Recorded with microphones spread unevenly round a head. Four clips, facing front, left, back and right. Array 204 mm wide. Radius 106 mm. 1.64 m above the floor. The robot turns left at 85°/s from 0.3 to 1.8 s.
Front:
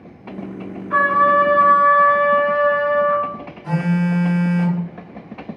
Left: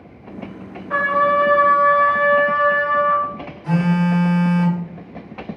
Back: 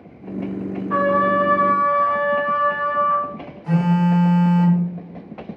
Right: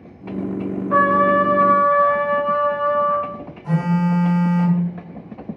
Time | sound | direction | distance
0.9 | a trumpet | 115° left | 1.9 m
3.6 | a phone buzzing | 50° left | 1.9 m